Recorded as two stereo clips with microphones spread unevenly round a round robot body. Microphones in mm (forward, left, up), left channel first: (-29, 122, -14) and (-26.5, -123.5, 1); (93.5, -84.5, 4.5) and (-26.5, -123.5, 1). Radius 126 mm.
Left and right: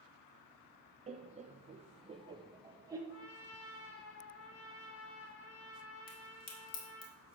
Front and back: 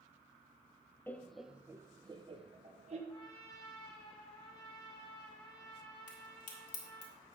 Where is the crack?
35° left, 1.8 m.